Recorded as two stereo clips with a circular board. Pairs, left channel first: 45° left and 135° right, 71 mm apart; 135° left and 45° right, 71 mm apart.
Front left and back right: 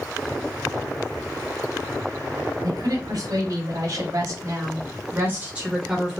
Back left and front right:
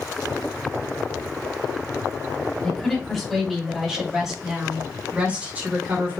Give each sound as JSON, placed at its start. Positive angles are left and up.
{"t": 2.6, "sound": "a woman speaking", "azimuth_deg": -145, "distance_m": 2.5}